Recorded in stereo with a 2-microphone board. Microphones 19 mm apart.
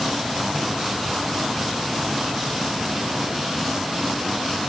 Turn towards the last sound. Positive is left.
No sound to turn to.